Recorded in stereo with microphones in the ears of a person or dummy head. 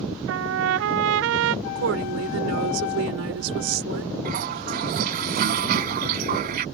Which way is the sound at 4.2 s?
55° right (ahead or behind).